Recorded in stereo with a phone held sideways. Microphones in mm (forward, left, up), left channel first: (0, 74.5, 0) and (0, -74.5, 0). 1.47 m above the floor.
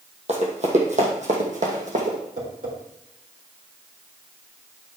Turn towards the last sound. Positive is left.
turn(degrees=-60)  # may be behind; listen again after turning